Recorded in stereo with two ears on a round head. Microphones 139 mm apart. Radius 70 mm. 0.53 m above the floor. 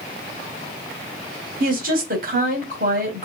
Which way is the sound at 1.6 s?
60° right (ahead or behind).